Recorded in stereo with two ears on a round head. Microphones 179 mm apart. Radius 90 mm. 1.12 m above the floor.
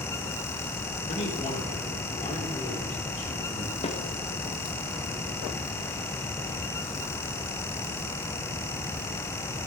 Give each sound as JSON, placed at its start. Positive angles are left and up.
{"t": 1.1, "sound": "a man speaking", "side_deg": 35, "distance_m": 3.0}
{"t": 3.8, "sound": "a snare drum", "side_deg": 30, "distance_m": 1.3}